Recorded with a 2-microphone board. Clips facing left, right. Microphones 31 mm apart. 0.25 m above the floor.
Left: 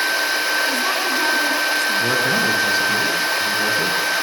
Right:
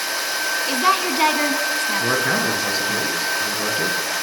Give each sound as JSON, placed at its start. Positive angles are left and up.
{"t": 0.7, "sound": "a woman speaking", "side_deg": -35, "distance_m": 3.0}
{"t": 2.0, "sound": "a man speaking", "side_deg": -15, "distance_m": 3.5}